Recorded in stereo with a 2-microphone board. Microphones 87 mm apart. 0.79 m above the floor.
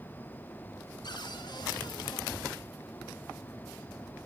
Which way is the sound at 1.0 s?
60° left (ahead or behind).